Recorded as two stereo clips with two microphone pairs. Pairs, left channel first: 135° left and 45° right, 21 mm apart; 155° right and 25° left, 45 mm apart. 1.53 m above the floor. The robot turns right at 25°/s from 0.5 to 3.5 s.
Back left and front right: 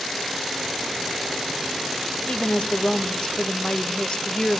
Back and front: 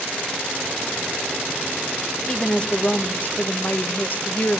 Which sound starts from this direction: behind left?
A woman speaking, at 2.3 s.